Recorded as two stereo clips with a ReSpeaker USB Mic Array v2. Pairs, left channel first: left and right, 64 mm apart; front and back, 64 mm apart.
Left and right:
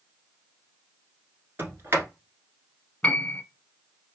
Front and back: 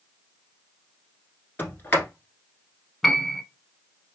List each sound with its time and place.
1.6 s a sliding door: 50° right, 1.1 m
3.0 s a piano: 80° left, 0.6 m